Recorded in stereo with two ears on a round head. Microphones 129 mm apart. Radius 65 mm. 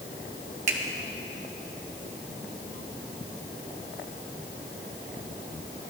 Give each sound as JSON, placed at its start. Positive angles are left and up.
{"t": 0.7, "sound": "a finger snap", "side_deg": -55, "distance_m": 1.3}